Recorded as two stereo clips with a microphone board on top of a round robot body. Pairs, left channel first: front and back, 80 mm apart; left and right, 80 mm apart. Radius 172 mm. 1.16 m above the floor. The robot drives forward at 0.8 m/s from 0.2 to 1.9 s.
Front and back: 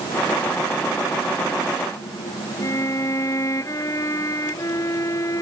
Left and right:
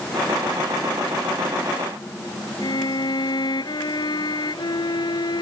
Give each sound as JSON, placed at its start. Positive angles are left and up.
{"t": 2.6, "sound": "a violin", "azimuth_deg": 55}